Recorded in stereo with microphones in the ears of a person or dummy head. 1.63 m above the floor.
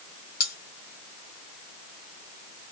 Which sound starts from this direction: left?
Cutlery clinking, at 0.4 s.